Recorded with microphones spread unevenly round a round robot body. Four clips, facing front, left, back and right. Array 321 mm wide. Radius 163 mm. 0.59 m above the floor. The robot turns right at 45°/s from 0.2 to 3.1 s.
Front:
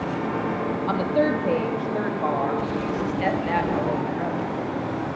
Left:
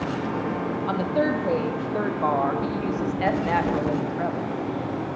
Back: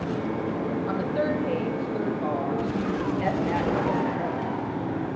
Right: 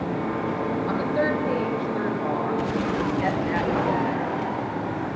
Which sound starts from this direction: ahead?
A woman speaking, at 0.9 s.